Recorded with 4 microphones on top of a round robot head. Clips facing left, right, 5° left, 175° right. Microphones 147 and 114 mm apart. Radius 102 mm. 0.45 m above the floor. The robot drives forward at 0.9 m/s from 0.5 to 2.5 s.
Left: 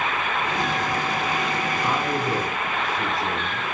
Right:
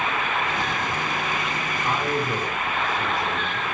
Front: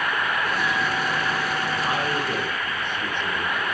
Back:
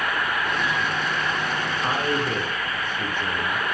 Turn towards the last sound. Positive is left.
turn(degrees=135)